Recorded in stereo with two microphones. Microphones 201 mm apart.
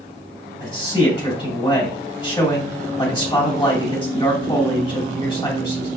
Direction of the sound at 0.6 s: 25° left (ahead or behind).